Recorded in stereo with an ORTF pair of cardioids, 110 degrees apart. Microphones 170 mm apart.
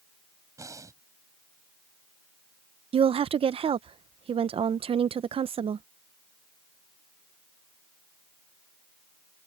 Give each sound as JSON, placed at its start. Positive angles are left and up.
{"t": 0.6, "sound": "breathing", "azimuth_deg": -20}
{"t": 2.9, "sound": "a woman speaking", "azimuth_deg": -35}